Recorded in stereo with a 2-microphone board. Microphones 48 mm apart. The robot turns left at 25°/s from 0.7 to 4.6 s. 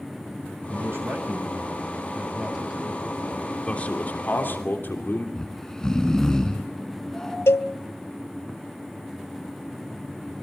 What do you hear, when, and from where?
0.7 s a man speaking: 120° right, 6.5 m; by 3.6 s 170° left, 6.5 m
3.7 s a man speaking: 25° left (ahead or behind), 3 m; by 5.2 s 45° left (ahead or behind), 3 m
5.3 s snoring: 10° left (ahead or behind), 3 m
7.5 s a cowbell: 65° left (ahead or behind), 0.9 m